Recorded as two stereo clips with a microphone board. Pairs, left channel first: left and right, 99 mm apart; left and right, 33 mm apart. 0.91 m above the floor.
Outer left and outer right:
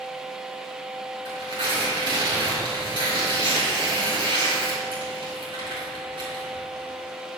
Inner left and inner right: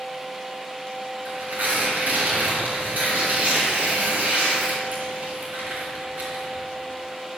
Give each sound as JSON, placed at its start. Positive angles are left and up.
{"t": 1.2, "sound": "tearing paper", "side_deg": -50, "distance_m": 4.5}